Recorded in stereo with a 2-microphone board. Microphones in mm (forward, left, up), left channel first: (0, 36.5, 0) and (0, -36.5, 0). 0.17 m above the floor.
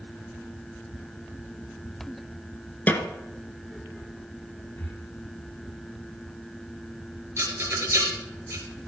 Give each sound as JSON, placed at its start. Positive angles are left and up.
{"t": 2.9, "sound": "a snare drum", "side_deg": 25, "distance_m": 1.1}
{"t": 4.8, "sound": "breathing", "side_deg": 30, "distance_m": 4.0}
{"t": 7.4, "sound": "a rattle", "side_deg": -35, "distance_m": 3.0}